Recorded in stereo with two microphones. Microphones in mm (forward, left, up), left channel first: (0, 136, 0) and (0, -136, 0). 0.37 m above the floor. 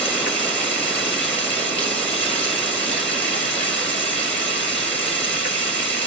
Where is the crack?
I don't hear a crack.